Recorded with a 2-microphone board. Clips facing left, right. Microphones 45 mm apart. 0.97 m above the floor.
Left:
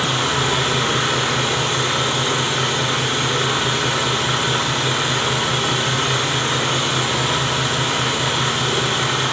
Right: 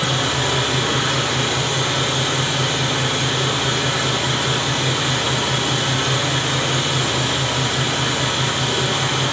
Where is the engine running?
75° left (ahead or behind), 4 m.